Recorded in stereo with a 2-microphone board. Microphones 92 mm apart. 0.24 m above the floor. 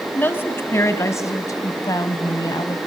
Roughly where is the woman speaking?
Left.